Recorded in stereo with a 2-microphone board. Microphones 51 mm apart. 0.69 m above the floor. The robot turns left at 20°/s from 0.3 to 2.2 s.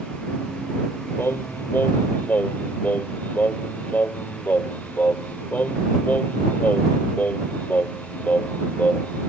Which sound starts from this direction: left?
Singing, at 1.2 s.